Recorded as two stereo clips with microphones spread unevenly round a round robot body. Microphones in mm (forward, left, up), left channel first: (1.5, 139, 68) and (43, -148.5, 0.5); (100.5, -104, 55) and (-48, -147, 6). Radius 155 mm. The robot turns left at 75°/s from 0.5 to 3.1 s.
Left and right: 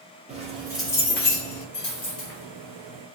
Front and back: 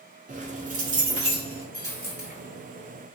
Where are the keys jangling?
145° right, 0.8 m; by 1.6 s 130° left, 0.8 m.